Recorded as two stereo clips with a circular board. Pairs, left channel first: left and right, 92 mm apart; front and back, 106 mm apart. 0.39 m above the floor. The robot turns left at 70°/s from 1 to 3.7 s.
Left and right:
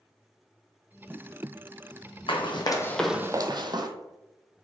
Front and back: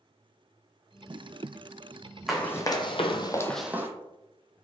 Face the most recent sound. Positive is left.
turn(degrees=-115)